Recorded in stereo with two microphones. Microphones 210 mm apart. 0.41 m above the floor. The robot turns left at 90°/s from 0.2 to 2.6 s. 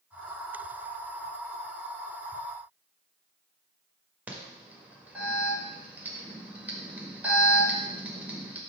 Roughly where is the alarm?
Centre.